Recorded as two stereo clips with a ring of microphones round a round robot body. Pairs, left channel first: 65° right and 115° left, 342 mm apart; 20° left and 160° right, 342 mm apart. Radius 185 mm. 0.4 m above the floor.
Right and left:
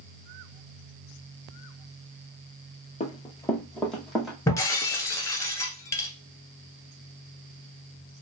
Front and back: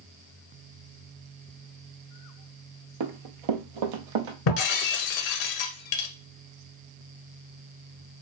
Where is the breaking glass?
15° left, 1.1 m.